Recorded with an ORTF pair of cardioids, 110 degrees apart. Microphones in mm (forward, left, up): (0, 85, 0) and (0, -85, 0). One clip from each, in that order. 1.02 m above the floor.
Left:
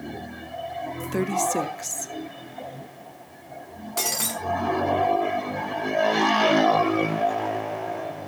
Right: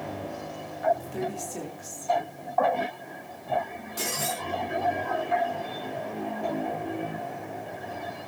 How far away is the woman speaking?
About 2 m.